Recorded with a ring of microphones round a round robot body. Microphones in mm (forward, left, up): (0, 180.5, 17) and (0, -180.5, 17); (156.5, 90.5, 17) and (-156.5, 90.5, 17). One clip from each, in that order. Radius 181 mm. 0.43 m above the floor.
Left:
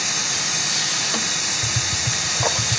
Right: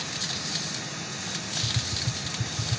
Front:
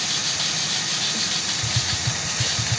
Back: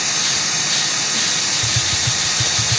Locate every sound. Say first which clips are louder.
0.0 s running water: left 9 dB, back 4 dB; 130° left
1.6 s tapping: left 7 dB, back 6 dB; 100° left